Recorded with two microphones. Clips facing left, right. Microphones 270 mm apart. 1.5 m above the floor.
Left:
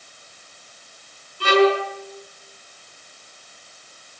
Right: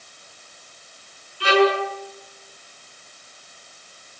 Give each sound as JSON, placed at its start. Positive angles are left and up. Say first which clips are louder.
{"t": 1.4, "sound": "a violin", "louder": "left 1 dB", "side_deg": 50, "distance_m": 6.0}